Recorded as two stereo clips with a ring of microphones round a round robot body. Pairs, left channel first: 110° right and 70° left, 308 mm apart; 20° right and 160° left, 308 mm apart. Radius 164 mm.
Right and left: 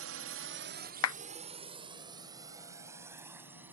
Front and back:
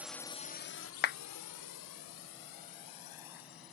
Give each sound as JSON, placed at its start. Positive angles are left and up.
{"t": 0.0, "sound": "a drone", "azimuth_deg": 75}
{"t": 1.0, "sound": "a clap", "azimuth_deg": -80}